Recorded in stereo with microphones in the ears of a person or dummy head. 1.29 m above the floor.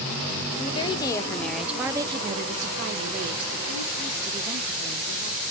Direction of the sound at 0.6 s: 35° left (ahead or behind).